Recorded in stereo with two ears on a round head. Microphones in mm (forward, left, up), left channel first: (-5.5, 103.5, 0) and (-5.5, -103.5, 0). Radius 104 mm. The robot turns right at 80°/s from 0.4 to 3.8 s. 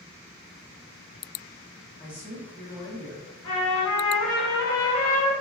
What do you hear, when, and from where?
2.0 s a man speaking: centre (ahead or behind), 0.8 m; by 3.3 s 25° right (ahead or behind), 0.8 m
3.4 s a trumpet: 55° left (ahead or behind), 1.1 m; by 5.4 s 70° left (ahead or behind), 1.1 m